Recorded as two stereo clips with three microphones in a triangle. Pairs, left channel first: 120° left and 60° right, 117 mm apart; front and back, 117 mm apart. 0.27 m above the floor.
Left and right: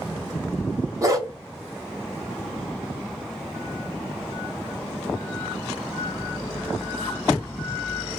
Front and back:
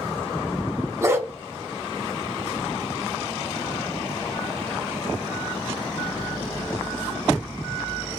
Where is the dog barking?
120° right, 0.7 m.